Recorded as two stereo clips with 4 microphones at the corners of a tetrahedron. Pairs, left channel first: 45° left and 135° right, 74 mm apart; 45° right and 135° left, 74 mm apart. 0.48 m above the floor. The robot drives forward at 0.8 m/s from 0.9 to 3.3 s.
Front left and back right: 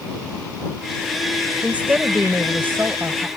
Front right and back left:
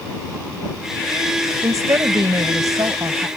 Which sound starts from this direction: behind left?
A woman speaking, at 1.6 s.